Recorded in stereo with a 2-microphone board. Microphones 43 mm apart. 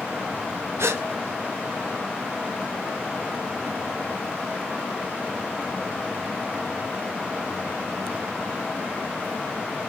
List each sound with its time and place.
0.8 s a gasp: 85° right, 0.7 m